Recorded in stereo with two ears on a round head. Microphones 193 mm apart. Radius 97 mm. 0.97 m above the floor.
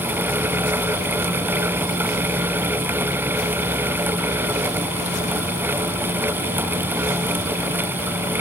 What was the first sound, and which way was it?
Only background noise.